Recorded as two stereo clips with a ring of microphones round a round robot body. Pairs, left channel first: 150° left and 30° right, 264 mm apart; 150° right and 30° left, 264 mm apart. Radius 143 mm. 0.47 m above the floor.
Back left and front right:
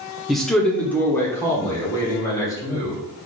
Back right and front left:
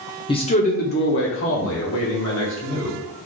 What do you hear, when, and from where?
0.3 s a man speaking: 120° right, 0.7 m; by 3.0 s 135° right, 1.7 m